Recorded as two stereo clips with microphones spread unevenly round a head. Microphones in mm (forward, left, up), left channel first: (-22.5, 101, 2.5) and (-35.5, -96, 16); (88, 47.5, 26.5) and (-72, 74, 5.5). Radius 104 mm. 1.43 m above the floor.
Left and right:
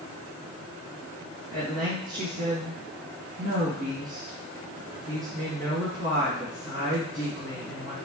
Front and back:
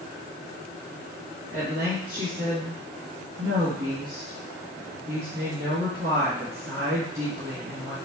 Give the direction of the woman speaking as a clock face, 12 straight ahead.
5 o'clock.